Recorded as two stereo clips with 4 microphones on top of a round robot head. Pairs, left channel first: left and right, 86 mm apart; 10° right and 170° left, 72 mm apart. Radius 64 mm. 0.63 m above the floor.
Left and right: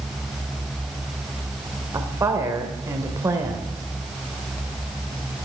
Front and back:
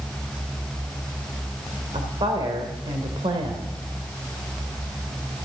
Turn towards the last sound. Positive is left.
turn(degrees=-145)